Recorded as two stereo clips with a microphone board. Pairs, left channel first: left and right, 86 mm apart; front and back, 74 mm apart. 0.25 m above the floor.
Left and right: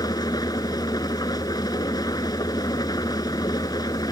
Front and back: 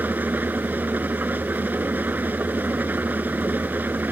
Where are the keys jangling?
No keys jangling in this recording.